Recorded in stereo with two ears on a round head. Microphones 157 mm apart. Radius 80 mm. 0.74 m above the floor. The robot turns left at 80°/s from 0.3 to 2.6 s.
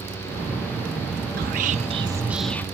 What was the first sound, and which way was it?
Whispering, 95° right.